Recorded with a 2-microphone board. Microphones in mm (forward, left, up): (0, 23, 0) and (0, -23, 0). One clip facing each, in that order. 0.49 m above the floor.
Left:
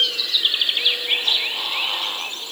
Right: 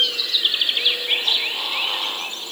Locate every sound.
Only background noise.